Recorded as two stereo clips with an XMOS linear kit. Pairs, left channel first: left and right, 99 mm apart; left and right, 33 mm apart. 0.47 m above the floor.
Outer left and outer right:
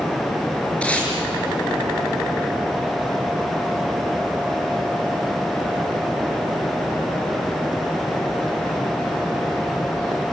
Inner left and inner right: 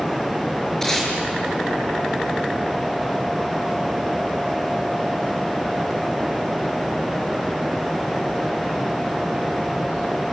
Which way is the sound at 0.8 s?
15° left (ahead or behind).